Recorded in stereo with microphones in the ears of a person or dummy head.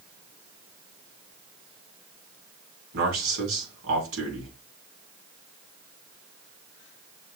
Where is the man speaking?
80° right, 3.5 m.